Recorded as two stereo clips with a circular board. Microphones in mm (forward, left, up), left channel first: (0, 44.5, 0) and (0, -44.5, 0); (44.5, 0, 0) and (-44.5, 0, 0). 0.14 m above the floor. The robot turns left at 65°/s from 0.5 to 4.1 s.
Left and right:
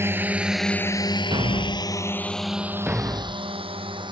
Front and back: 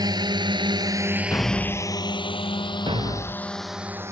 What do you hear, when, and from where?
0.0 s a drone: 150° right; by 4.1 s 120° right
1.3 s a thud: 60° right; by 4.1 s 120° left